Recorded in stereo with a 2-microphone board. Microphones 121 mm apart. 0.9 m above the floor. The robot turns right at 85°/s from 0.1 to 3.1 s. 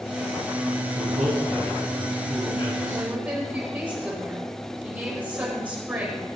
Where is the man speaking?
100° right, 5 m; by 3.0 s 75° left, 5 m.